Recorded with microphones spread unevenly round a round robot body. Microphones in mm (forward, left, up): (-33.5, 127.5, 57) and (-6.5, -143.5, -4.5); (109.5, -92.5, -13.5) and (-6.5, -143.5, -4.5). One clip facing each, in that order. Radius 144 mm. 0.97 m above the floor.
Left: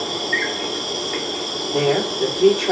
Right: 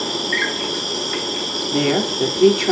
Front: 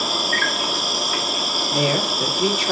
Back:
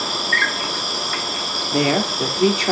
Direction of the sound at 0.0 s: 45° right.